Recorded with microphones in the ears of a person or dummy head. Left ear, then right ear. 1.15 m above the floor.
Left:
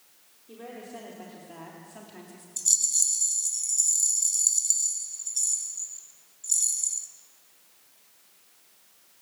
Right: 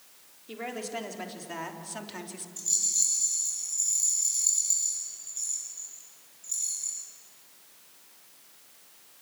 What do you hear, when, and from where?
0.5 s a woman speaking: 70° right (ahead or behind), 4 m; by 2.5 s 40° right (ahead or behind), 3 m
2.6 s a rattle: 25° left (ahead or behind), 4 m